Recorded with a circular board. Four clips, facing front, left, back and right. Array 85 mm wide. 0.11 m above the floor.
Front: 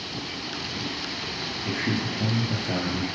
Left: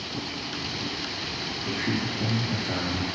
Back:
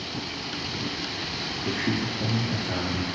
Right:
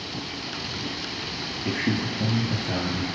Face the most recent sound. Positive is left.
turn(degrees=-20)